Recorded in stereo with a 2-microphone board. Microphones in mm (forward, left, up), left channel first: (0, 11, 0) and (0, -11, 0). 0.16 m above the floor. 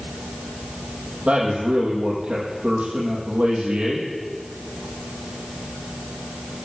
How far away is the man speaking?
About 6.5 m.